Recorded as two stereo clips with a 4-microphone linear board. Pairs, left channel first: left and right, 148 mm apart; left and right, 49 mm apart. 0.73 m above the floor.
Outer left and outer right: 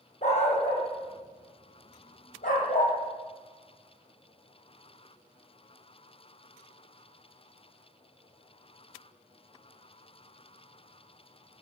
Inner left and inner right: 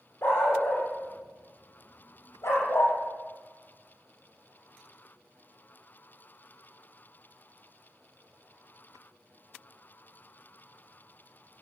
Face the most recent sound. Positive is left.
turn(degrees=65)  # may be behind; listen again after turning